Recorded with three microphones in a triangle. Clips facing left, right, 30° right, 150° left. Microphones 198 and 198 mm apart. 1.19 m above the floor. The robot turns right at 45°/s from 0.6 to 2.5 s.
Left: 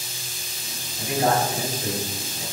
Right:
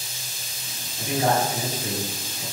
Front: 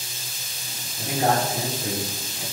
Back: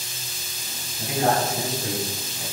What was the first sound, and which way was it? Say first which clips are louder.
A man speaking: left 1 dB, even; straight ahead.